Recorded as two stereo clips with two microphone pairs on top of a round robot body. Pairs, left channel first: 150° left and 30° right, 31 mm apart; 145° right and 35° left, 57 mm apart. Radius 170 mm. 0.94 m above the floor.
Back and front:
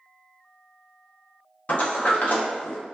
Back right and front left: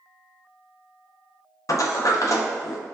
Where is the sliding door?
170° right, 0.6 m.